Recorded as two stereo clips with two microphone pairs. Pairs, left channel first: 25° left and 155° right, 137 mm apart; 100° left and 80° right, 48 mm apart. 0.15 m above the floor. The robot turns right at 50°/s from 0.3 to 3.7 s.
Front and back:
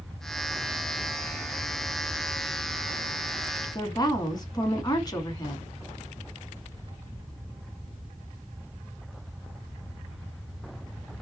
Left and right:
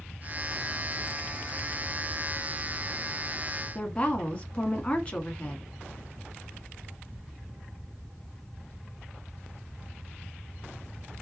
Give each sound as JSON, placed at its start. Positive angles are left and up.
{"t": 3.8, "sound": "a woman speaking", "azimuth_deg": 55, "distance_m": 1.2}